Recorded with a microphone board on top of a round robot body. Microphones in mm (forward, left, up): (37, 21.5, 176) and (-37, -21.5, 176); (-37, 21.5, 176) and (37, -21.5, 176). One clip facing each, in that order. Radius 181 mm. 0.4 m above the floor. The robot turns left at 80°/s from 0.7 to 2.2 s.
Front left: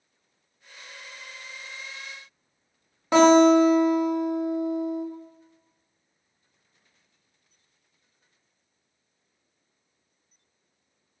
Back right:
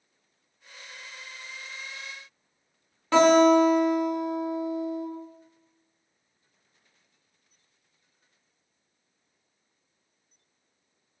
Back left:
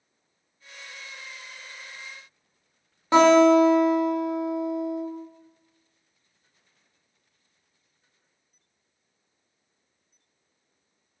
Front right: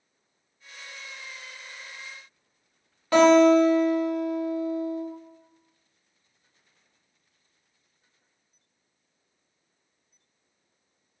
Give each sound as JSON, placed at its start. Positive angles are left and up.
{"t": 3.1, "sound": "a guitar", "azimuth_deg": 95, "distance_m": 1.1}